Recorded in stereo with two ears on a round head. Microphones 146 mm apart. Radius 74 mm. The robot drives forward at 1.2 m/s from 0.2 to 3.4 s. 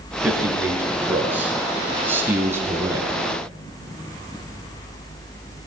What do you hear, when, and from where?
0.2 s a man speaking: 10° right (ahead or behind), 6.5 m; by 3.2 s 20° right (ahead or behind), 3.5 m